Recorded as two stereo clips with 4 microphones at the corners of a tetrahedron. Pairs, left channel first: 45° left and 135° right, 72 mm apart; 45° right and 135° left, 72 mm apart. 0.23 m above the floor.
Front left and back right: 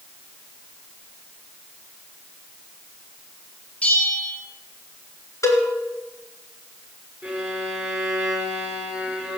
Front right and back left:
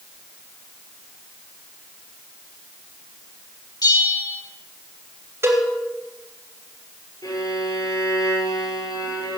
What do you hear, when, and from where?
3.8 s a bell: 25° right, 3 m
5.4 s a cowbell: 85° left, 3 m
7.2 s a violin: 50° right, 4 m